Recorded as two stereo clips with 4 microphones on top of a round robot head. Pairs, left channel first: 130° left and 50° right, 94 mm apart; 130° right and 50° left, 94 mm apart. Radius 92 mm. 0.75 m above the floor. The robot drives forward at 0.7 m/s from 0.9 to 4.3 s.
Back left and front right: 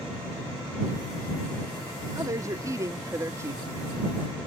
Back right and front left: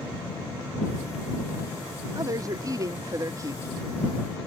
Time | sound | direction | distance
2.1 | a woman speaking | straight ahead | ?